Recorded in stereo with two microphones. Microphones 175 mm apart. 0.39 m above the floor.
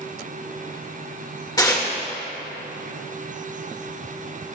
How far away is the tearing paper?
About 1.1 m.